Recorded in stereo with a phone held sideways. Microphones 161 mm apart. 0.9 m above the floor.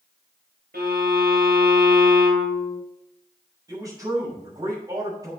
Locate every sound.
0.7 s a violin: 90° right, 2.5 m
3.7 s a man speaking: 25° right (ahead or behind), 4.5 m